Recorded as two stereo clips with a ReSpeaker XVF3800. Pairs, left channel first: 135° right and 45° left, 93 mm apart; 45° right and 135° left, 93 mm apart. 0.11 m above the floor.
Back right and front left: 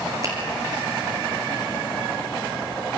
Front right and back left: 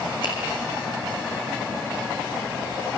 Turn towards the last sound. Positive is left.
turn(degrees=-10)